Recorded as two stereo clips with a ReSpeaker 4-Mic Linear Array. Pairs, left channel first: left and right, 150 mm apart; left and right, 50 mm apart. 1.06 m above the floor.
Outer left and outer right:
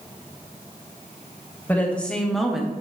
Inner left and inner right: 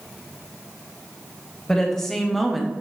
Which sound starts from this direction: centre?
A woman speaking, at 1.7 s.